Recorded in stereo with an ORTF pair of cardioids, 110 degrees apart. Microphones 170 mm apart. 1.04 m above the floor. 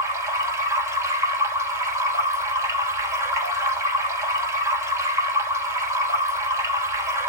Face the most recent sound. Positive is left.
turn(degrees=-15)